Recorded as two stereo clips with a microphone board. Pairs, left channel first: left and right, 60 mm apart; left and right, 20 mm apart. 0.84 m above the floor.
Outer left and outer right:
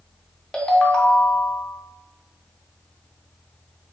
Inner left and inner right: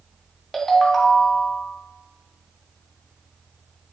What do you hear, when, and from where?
0.5 s a ringtone: 15° left (ahead or behind), 0.6 m